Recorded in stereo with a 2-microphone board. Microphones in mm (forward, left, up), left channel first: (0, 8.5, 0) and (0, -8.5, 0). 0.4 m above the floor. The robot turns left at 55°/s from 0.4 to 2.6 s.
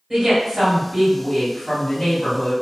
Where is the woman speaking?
125° right, 1.7 m; by 2.5 s 120° left, 1.7 m.